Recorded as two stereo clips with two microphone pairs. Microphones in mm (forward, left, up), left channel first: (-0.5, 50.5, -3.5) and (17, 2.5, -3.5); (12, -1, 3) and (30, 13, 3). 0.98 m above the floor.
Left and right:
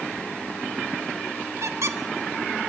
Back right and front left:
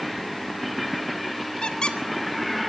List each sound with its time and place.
1.6 s a squeak: 90° right, 1.7 m